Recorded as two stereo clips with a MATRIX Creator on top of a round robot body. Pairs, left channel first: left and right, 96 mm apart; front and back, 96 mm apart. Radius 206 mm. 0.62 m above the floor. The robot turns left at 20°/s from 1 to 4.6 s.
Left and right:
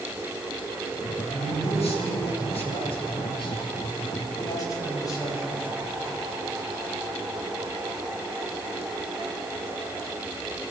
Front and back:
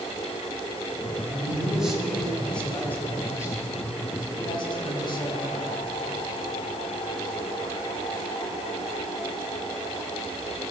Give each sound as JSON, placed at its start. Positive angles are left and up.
{"t": 1.3, "sound": "a man speaking", "azimuth_deg": 105, "distance_m": 5.0}